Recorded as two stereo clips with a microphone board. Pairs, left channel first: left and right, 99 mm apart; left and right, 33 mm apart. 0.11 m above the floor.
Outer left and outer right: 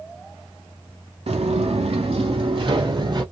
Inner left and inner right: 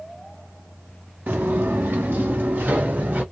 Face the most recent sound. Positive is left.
turn(degrees=-50)  # may be behind; listen again after turning